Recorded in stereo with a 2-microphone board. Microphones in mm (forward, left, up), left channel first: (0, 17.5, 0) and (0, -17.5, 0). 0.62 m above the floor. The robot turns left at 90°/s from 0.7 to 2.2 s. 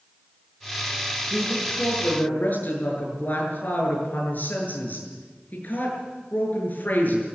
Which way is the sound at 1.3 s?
150° right.